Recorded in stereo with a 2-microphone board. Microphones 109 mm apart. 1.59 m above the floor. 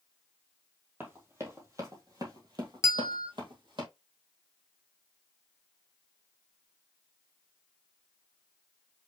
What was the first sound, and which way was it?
Running footsteps, 25° right (ahead or behind).